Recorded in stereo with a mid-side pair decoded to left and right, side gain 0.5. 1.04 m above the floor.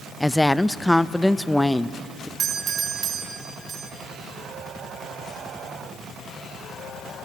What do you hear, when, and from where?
0.2 s a woman speaking: 10° left, 0.6 m
2.4 s a doorbell: 50° right, 1.9 m